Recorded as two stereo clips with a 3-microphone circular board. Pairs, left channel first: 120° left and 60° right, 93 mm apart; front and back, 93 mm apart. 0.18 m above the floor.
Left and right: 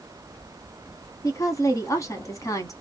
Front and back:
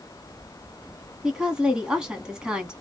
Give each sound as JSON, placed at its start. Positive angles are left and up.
{"t": 1.2, "sound": "a woman speaking", "azimuth_deg": 105, "distance_m": 1.2}